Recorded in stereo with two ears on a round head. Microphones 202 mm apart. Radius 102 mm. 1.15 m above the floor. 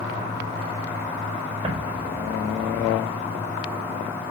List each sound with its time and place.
1.6 s an explosion: 30° right (ahead or behind), 5 m